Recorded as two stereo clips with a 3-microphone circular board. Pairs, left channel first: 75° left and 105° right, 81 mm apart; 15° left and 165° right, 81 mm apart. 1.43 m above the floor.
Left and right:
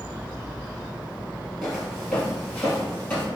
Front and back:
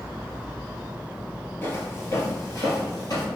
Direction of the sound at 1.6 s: Straight ahead.